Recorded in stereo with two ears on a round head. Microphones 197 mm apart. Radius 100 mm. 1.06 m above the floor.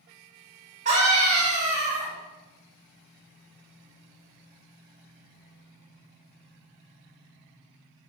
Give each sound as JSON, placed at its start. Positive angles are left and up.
{"t": 0.8, "sound": "a scream", "side_deg": -30, "distance_m": 1.6}